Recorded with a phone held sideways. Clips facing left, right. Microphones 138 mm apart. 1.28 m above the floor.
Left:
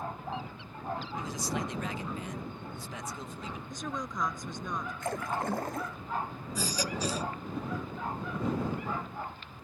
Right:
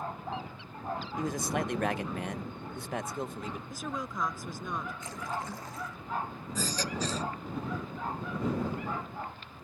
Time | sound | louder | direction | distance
1.2 | a man speaking | right 7 dB | 55° right (ahead or behind) | ?
3.7 | a woman speaking | left 2 dB | 5° right (ahead or behind) | ?
5.0 | a splash | left 4 dB | 65° left (ahead or behind) | ?
6.5 | a baby crying | even | 10° left (ahead or behind) | ?